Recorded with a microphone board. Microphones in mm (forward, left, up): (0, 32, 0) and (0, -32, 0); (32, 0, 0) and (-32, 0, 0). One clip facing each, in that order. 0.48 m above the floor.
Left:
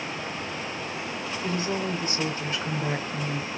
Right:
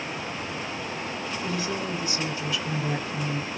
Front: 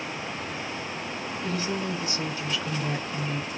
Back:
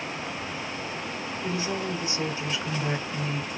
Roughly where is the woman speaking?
Behind left.